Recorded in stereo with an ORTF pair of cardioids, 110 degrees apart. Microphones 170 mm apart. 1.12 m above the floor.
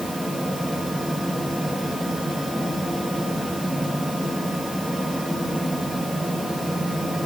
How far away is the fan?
About 1.6 m.